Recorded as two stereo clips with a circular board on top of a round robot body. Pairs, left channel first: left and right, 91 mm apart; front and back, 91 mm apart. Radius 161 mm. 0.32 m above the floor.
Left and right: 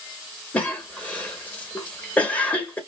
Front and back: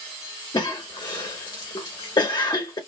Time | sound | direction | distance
0.5 | a cough | 20° left | 1.4 m